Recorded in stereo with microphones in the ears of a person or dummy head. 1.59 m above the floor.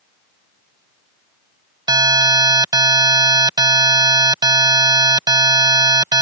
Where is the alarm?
20° right (ahead or behind).